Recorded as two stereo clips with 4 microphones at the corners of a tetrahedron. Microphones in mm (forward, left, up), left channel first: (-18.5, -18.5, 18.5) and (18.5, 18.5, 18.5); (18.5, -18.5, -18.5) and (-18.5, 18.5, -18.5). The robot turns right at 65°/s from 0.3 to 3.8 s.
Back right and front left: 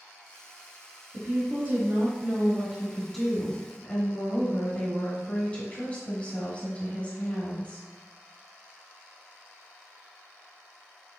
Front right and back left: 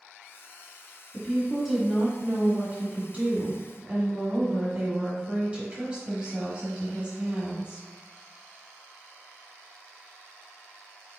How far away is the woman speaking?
About 1.0 m.